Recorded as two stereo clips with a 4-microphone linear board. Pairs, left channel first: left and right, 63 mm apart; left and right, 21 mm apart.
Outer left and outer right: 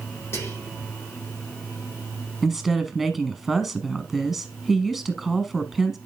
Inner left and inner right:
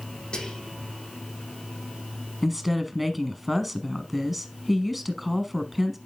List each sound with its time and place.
0.3 s whispering: 45° left (ahead or behind), 6 m
2.4 s a woman speaking: 5° right (ahead or behind), 1.2 m